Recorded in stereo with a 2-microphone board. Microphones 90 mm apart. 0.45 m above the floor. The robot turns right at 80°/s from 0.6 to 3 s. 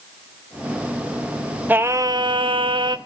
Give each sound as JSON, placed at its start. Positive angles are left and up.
{"t": 1.7, "sound": "singing", "azimuth_deg": -160, "distance_m": 0.8}